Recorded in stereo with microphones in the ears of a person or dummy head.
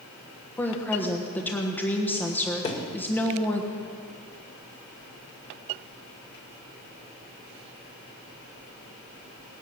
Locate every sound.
0.6 s a woman speaking: 15° left (ahead or behind), 1.3 m
2.6 s a thud: 30° left (ahead or behind), 1.8 m